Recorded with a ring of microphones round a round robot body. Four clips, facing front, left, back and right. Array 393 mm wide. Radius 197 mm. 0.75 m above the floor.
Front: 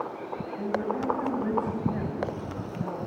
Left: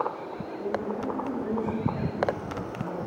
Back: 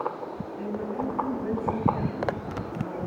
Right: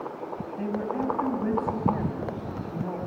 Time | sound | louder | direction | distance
0.6 | a woman speaking | right 2 dB, front 2 dB | 70° right | 5 m